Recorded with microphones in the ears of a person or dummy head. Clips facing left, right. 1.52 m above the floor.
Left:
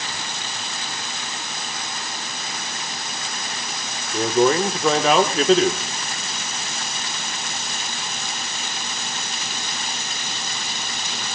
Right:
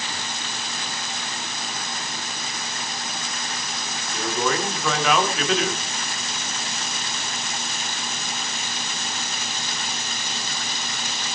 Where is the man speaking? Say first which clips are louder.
Left 8 dB; 30° left (ahead or behind), 1.7 m.